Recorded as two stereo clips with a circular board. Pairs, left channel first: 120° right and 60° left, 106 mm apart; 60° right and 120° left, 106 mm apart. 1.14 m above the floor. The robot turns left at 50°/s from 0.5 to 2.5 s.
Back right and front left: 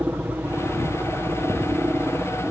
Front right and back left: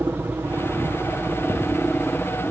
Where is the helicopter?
100° left; by 2.5 s straight ahead.